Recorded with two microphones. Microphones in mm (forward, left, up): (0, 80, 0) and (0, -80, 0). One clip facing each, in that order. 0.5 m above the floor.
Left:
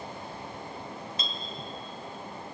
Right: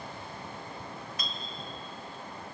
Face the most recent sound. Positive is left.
turn(degrees=25)  # may be behind; listen again after turning